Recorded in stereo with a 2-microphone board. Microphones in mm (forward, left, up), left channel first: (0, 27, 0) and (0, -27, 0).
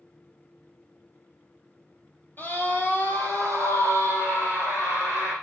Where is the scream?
40° left (ahead or behind), 2.5 m; by 5.3 s 75° left (ahead or behind), 6 m.